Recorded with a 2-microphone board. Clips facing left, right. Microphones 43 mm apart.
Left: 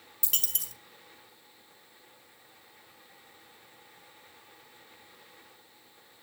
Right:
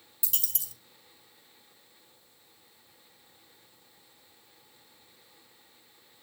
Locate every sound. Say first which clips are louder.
0.2 s a dropped coin: left 5 dB; 55° left (ahead or behind), 1.2 m